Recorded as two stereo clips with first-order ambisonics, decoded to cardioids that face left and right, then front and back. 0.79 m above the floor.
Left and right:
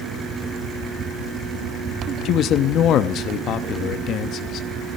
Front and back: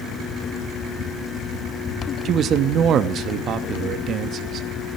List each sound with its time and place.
2.2 s a man speaking: 130° left, 0.8 m